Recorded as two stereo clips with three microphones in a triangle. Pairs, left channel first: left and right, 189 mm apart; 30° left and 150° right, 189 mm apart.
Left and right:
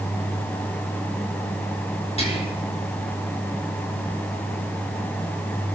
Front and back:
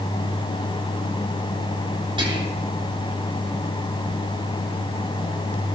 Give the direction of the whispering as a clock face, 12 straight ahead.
7 o'clock.